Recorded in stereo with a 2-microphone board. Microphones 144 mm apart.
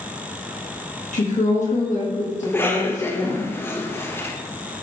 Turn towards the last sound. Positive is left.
turn(degrees=15)  # may be behind; listen again after turning